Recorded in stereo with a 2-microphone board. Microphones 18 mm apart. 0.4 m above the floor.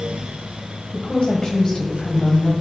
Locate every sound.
0.9 s a woman speaking: 55° left (ahead or behind), 1.8 m; by 2.5 s 25° left (ahead or behind), 2.5 m